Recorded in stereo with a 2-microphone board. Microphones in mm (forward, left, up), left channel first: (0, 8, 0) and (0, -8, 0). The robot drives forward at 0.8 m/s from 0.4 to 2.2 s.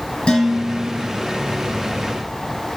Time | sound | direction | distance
0.3 | dishes clattering | 75° left (ahead or behind) | 4.5 m